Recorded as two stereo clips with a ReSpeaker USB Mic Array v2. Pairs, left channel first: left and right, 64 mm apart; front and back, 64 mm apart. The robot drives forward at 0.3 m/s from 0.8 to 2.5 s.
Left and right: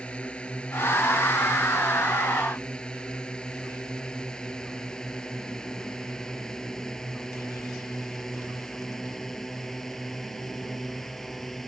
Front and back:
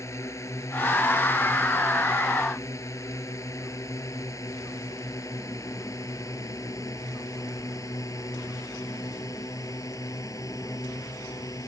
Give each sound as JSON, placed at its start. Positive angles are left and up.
{"t": 0.0, "sound": "a drone", "azimuth_deg": 20}